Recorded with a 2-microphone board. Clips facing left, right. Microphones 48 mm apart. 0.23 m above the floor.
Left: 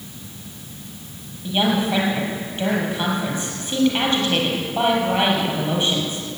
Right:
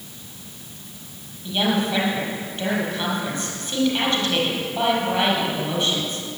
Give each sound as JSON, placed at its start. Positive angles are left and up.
{"t": 1.4, "sound": "a woman speaking", "side_deg": 30, "distance_m": 5.5}